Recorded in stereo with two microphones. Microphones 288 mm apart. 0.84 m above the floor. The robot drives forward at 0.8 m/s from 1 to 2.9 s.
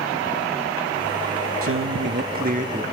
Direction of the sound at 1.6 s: 55° right (ahead or behind).